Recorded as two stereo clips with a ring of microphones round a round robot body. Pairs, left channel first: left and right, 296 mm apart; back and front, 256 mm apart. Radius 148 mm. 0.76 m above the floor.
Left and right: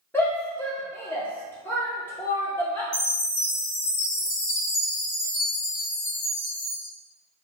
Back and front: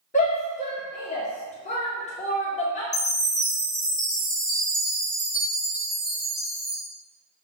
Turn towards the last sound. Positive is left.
turn(degrees=105)